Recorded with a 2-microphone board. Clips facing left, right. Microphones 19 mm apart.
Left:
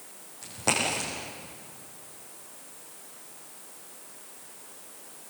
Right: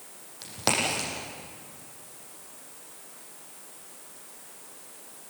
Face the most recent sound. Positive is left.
turn(degrees=-70)  # may be behind; listen again after turning